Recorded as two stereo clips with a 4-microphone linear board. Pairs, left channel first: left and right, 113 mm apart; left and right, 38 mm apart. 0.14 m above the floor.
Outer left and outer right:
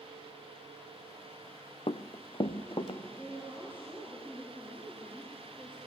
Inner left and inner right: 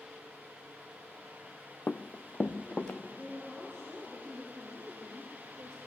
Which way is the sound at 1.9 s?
60° left (ahead or behind).